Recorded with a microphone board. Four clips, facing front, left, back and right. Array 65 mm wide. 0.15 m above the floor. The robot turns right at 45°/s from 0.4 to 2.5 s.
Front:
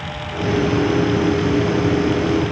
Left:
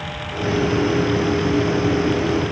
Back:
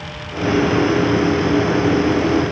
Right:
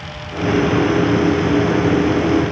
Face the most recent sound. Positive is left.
No sound to turn to.